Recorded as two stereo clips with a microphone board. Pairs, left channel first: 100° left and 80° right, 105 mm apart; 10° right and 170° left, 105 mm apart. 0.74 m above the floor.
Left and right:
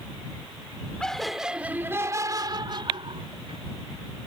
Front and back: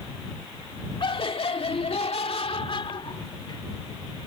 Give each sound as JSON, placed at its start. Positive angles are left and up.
{"t": 1.0, "sound": "laughter", "azimuth_deg": 20}